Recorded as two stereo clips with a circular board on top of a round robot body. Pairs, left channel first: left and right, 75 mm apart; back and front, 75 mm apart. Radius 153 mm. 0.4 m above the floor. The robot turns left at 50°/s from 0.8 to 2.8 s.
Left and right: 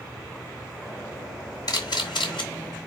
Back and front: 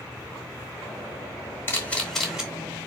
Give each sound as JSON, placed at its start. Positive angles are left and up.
{"t": 1.7, "sound": "a camera shutter", "azimuth_deg": 120, "distance_m": 2.5}